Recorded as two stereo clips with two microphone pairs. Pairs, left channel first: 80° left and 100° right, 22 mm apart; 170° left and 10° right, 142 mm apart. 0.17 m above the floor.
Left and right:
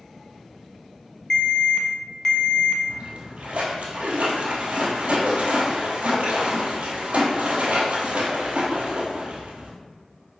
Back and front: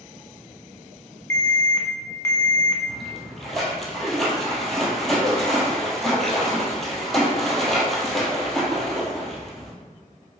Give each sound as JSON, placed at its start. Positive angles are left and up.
{"t": 1.3, "sound": "an alarm", "azimuth_deg": 120, "distance_m": 0.8}
{"t": 2.9, "sound": "a splash", "azimuth_deg": -100, "distance_m": 1.2}